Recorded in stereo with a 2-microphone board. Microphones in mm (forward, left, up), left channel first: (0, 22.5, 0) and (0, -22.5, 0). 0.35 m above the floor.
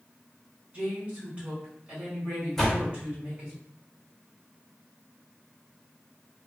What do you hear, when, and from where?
0.7 s a woman speaking: 25° right (ahead or behind), 1.9 m
2.6 s a door slam: 10° left (ahead or behind), 0.8 m